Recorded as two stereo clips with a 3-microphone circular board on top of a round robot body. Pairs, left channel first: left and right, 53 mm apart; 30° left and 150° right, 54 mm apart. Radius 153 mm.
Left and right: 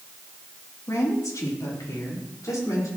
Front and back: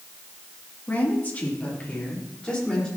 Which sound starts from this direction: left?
A woman speaking, at 0.9 s.